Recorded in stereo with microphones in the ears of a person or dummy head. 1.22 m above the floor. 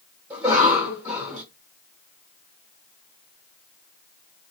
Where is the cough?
10° right (ahead or behind), 1.4 m.